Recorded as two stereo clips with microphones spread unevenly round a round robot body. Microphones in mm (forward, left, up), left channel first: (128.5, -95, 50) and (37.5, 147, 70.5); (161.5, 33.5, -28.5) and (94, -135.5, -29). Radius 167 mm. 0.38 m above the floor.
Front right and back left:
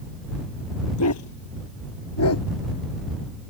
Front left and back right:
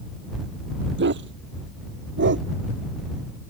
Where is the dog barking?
110° right.